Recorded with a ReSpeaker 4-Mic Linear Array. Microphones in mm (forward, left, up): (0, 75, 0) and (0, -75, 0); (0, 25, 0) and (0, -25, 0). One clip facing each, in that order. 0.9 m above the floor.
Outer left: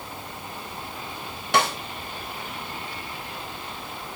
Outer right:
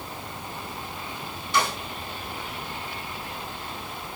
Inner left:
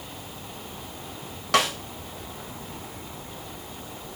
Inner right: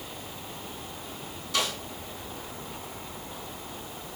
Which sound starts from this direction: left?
A snare drum, at 1.5 s.